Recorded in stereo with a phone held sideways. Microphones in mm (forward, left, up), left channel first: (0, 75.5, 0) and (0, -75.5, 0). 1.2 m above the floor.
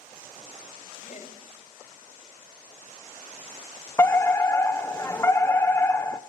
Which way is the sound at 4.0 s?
20° left (ahead or behind).